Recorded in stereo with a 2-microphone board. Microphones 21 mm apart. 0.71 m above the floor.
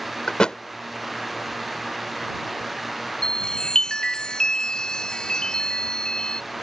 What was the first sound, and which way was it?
A thud, 40° left (ahead or behind).